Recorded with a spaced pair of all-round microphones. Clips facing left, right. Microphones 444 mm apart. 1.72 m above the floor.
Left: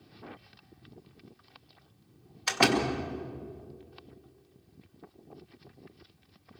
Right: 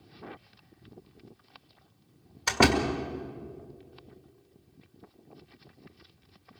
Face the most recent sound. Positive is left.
turn(degrees=-65)  # may be behind; listen again after turning